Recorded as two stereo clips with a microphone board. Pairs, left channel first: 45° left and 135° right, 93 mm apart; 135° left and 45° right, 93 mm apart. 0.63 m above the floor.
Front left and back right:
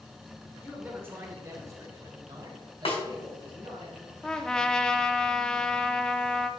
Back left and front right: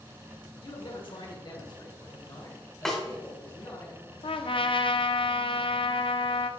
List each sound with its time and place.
0.6 s a man speaking: 150° left, 1.6 m; by 3.9 s 170° right, 3 m
2.9 s a snare drum: 50° left, 1.8 m
4.2 s a trumpet: 125° left, 0.5 m